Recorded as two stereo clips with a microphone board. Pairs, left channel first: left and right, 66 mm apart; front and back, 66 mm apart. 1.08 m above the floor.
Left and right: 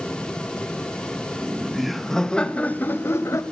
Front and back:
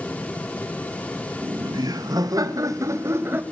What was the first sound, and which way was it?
Laughter, 170° right.